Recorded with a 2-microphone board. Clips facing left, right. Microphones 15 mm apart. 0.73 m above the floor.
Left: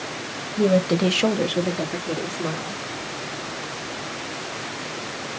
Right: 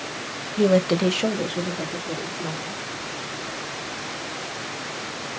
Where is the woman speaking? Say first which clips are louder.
Even; 40° right (ahead or behind), 0.7 m; by 2.8 s 75° left (ahead or behind), 1.9 m.